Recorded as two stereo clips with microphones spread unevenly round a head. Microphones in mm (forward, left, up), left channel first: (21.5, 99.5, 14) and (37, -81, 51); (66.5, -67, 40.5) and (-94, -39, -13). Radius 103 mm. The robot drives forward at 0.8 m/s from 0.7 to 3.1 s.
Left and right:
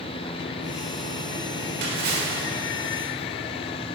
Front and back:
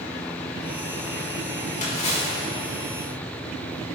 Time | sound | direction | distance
1.8 | a splash | 55° right | 4.5 m